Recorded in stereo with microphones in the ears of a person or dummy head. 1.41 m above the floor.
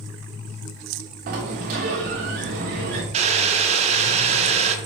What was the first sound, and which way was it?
A sliding door, 35° right (ahead or behind).